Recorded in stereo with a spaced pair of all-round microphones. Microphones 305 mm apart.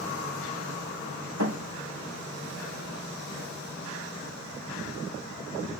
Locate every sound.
1.4 s a thud: 70° right (ahead or behind), 2.5 m